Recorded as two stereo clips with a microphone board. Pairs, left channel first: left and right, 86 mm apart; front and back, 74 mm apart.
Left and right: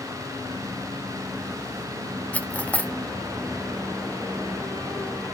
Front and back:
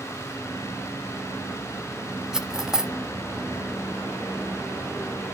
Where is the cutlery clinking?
110° left, 0.6 m.